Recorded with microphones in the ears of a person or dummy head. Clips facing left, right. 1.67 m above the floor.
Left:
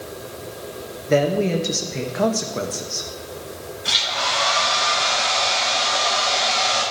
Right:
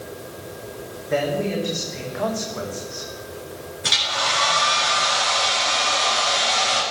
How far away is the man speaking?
About 1.6 m.